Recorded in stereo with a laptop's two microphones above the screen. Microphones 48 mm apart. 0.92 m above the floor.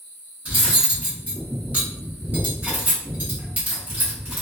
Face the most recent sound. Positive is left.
turn(degrees=-35)  # may be behind; listen again after turning